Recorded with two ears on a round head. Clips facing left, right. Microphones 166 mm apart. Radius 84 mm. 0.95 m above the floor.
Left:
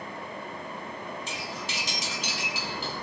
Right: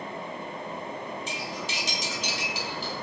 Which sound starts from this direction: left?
Cutlery clinking, at 1.3 s.